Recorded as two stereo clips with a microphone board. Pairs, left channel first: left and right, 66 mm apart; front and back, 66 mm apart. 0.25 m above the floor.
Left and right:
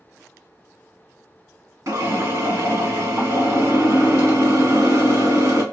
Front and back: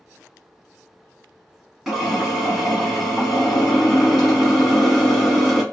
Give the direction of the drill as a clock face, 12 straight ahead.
3 o'clock.